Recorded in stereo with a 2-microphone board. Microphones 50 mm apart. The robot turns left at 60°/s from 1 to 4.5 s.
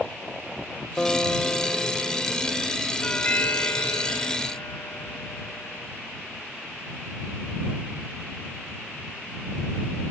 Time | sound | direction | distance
1.0 | a guitar | 15° left (ahead or behind) | ?
3.0 | a doorbell | 160° left | ?